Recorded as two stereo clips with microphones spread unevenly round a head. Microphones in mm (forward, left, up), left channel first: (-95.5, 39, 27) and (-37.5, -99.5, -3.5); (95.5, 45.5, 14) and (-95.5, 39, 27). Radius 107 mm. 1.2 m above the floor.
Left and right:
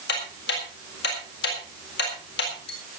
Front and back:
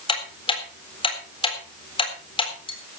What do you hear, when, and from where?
0.1 s ticking: 65° left, 4 m